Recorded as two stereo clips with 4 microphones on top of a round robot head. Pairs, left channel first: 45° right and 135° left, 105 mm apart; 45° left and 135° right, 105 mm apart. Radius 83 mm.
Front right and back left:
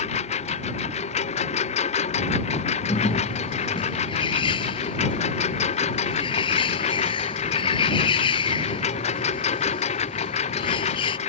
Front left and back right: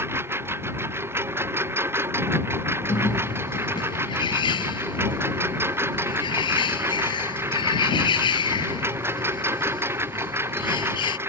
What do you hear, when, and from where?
0.0 s a lawn mower: 65° right
2.9 s a bird: straight ahead